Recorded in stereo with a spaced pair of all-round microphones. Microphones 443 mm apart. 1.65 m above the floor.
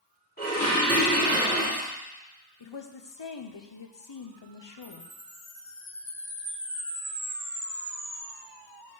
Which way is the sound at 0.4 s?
20° left (ahead or behind).